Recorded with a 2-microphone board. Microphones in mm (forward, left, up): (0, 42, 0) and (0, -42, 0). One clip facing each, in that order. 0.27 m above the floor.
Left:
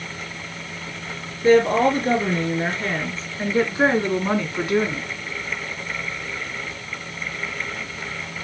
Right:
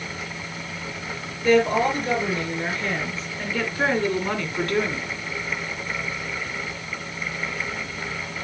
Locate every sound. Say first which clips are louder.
1.4 s a woman speaking: left 3 dB; 40° left (ahead or behind), 4.5 m; by 5.1 s 5° left (ahead or behind), 2 m